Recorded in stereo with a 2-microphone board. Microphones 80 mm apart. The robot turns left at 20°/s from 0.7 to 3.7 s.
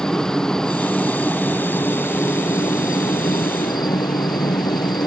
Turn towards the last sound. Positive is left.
turn(degrees=115)